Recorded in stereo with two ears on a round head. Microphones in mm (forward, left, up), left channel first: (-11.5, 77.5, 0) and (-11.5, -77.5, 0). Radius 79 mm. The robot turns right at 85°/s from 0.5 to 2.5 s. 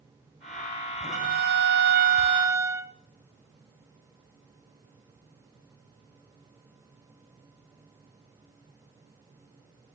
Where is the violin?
135° right, 0.5 m; by 2.9 s 15° right, 0.5 m.